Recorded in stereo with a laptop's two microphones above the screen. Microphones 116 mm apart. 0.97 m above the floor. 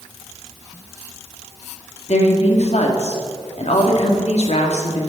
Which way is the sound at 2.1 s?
65° left (ahead or behind).